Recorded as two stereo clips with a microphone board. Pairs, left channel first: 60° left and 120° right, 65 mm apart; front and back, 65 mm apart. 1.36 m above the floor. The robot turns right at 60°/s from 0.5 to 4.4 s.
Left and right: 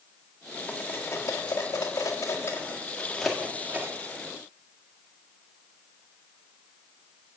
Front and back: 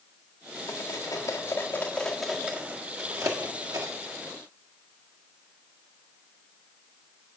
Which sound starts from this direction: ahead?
Cutlery clinking, at 0.7 s.